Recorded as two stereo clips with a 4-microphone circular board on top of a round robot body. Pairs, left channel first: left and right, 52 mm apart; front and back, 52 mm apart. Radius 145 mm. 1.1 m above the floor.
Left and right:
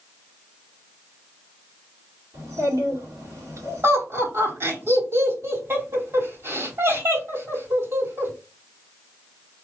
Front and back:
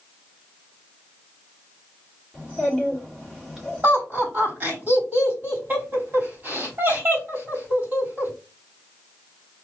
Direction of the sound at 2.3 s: 100° right.